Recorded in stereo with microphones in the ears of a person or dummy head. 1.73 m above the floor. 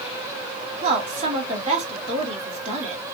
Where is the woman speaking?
35° right (ahead or behind), 1.9 m.